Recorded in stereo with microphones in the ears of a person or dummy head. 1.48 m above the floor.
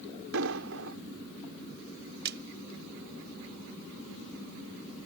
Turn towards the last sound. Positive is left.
turn(degrees=-60)  # may be behind; listen again after turning